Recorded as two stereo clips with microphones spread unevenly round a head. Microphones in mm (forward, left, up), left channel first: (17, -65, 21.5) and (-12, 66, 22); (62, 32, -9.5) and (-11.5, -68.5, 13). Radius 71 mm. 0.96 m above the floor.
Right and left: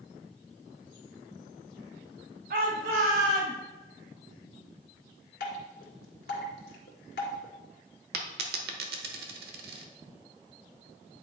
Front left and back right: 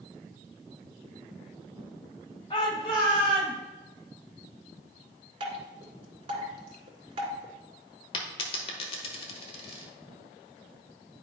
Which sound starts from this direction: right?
Dripping, at 5.4 s.